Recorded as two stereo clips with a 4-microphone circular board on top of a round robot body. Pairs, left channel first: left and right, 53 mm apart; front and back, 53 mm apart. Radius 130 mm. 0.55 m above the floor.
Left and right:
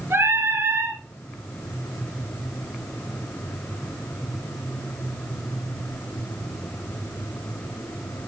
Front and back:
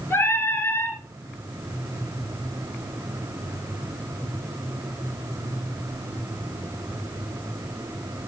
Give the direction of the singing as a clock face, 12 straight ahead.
2 o'clock.